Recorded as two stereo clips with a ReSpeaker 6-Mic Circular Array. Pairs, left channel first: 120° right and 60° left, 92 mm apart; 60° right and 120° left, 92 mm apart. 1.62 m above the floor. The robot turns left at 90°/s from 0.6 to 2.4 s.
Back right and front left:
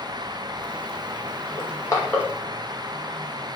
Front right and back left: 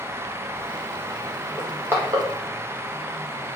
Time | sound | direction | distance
1.6 | crushing | 145° right | 0.8 m